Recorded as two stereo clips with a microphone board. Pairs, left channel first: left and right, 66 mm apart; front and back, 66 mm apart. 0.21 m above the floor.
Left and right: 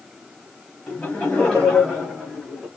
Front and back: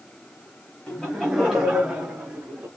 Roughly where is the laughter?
Ahead left.